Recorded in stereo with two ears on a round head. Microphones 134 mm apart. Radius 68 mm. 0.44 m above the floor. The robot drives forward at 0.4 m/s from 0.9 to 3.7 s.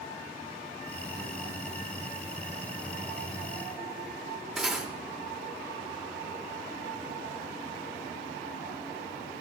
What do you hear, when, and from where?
4.6 s cutlery clinking: 5° right (ahead or behind), 0.7 m